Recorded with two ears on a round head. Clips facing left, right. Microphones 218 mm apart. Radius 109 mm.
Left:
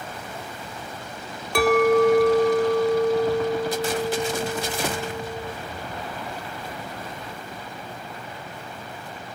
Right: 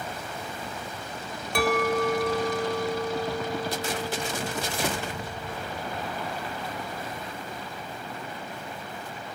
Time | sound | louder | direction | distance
1.6 | a clink | left 8 dB | 60° left (ahead or behind) | 0.6 m